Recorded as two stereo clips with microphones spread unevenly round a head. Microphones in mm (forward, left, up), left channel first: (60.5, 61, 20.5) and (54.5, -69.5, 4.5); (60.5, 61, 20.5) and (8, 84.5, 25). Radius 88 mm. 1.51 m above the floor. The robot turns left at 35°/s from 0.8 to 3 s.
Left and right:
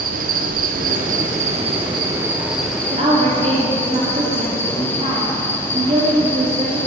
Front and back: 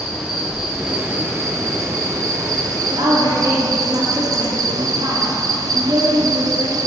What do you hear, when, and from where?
0.0 s an insect: 115° right, 1.3 m; by 6.9 s 165° left, 1.3 m
2.9 s a woman speaking: 150° right, 2.5 m; by 6.8 s 155° right, 2.5 m